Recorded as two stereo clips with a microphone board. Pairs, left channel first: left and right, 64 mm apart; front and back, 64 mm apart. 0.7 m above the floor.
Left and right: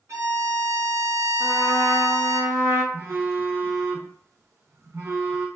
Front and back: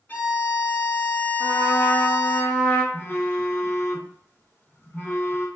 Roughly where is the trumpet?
Ahead right.